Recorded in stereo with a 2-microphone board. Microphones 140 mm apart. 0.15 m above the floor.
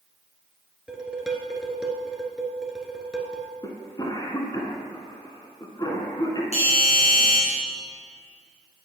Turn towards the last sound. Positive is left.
turn(degrees=50)  # may be behind; listen again after turning